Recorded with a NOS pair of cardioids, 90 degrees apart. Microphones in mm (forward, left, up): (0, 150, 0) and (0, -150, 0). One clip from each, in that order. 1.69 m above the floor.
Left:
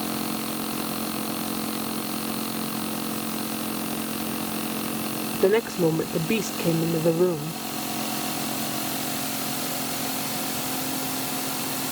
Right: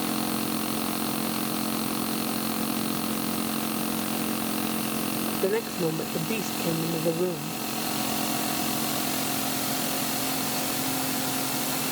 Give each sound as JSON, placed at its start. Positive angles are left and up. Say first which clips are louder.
{"t": 5.3, "sound": "a woman speaking", "louder": "left 7 dB", "azimuth_deg": 45}